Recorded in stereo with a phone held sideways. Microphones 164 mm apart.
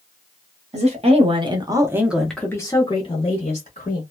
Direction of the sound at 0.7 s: 45° right (ahead or behind).